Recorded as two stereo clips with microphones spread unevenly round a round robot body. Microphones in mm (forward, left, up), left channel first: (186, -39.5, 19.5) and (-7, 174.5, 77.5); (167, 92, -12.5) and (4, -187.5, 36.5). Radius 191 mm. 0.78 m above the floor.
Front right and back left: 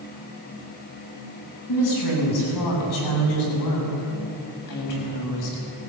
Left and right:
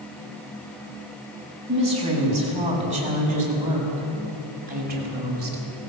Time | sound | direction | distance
1.7 | a woman speaking | 45° right | 8 m